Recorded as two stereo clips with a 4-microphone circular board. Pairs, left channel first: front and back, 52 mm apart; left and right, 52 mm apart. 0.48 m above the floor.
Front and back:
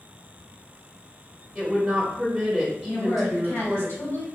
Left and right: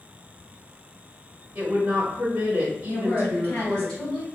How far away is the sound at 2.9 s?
About 1.8 m.